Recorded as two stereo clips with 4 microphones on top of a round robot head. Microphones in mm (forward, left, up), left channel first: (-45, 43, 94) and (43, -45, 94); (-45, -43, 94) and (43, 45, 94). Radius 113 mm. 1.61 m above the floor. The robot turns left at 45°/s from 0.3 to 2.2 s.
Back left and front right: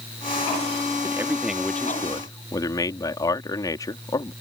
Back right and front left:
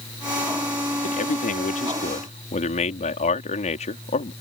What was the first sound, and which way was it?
A man speaking, 110° right.